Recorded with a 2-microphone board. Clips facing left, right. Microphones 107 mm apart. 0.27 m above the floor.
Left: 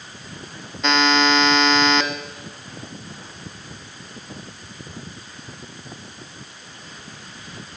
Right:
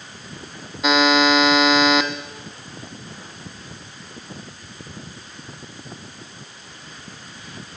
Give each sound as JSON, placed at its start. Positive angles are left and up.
{"t": 0.8, "sound": "a buzzer", "side_deg": -5, "distance_m": 0.6}